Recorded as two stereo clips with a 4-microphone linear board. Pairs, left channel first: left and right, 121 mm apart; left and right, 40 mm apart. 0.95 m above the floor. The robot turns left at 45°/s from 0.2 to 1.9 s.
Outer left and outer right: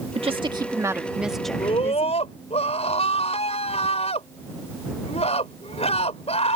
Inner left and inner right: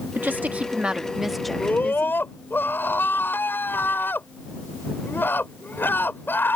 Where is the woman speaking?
125° right; by 2.2 s 160° left.